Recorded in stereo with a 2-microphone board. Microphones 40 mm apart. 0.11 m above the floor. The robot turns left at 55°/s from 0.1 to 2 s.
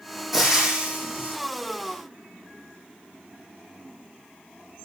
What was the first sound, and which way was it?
Frying, 5° right.